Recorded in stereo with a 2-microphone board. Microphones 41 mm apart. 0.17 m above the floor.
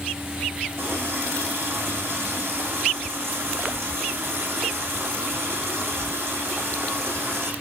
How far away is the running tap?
About 8 m.